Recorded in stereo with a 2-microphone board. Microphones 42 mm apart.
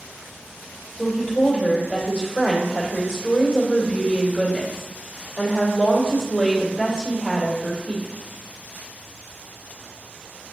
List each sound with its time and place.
1.0 s a woman speaking: 15° left (ahead or behind), 2 m